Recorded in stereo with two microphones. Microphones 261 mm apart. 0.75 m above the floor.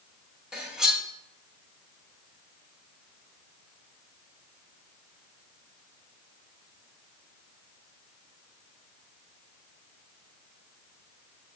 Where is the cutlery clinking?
5° right (ahead or behind), 0.9 m.